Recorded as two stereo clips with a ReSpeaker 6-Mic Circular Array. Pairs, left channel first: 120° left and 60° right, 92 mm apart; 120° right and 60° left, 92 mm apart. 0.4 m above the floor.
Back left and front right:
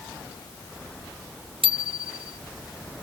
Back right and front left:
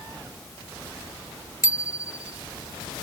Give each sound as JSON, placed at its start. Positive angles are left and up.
{"t": 1.6, "sound": "a bicycle bell", "azimuth_deg": -65}